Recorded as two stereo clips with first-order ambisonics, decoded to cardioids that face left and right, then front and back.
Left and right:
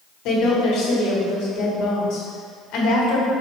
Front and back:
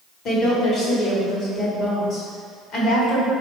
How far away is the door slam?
I don't hear a door slam.